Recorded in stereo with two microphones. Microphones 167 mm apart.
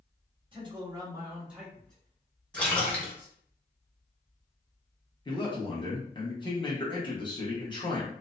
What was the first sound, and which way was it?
A man speaking, 30° right (ahead or behind).